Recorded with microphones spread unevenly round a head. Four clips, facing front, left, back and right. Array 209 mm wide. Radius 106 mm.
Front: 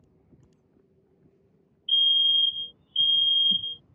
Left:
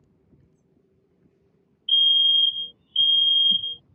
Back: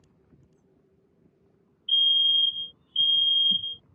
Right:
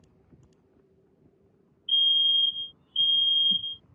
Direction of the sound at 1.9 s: 70° left.